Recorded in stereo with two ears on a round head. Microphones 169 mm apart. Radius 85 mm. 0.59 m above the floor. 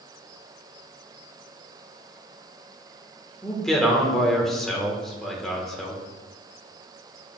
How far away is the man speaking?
About 1.3 m.